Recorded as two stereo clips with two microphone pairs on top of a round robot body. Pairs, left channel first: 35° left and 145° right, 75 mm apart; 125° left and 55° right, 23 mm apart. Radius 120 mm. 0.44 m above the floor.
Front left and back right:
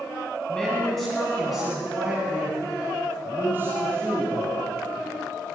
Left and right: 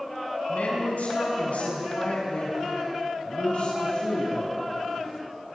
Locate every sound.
0.5 s a woman speaking: 115° left, 5.5 m; by 4.6 s 160° left, 6.5 m